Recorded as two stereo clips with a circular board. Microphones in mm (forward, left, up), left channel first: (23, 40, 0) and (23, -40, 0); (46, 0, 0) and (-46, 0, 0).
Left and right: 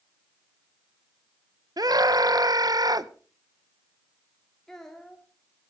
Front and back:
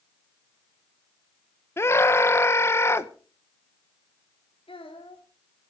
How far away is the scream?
About 1.0 m.